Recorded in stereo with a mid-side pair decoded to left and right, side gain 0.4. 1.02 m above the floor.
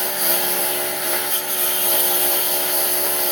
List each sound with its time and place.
0.0 s a lawn mower: 5° left